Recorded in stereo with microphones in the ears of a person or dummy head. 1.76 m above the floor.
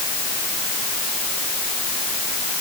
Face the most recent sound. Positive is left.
No sound to turn to.